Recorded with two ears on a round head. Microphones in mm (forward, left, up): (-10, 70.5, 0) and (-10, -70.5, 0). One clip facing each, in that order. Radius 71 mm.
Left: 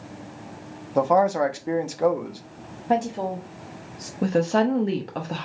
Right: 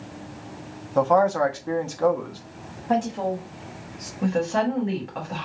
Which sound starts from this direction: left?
A woman speaking, at 4.2 s.